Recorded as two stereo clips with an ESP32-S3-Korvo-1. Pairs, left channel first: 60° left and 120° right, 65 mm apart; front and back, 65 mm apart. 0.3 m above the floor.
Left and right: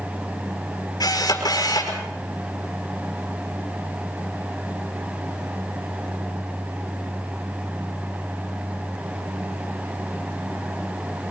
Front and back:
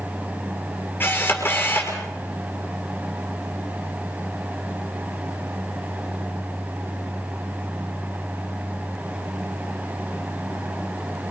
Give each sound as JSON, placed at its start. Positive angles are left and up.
{"t": 1.0, "sound": "a camera shutter", "azimuth_deg": 55, "distance_m": 6.5}